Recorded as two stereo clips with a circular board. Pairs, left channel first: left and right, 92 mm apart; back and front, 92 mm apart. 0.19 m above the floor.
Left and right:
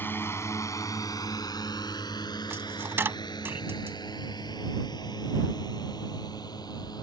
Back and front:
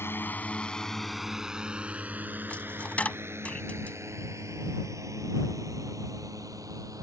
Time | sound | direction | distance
0.0 | a drone | 140° left | ?
2.5 | a dropped coin | 120° right | ?